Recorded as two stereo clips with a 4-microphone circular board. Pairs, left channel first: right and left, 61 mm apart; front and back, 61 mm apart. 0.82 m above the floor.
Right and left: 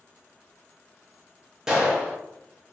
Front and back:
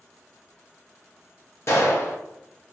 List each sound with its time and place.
1.7 s a gunshot: 15° left, 0.7 m